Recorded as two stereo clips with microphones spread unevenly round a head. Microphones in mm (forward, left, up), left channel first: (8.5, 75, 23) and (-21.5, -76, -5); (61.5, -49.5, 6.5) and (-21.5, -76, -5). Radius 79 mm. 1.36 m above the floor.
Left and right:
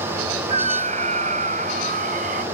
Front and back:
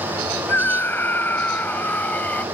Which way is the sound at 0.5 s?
45° right.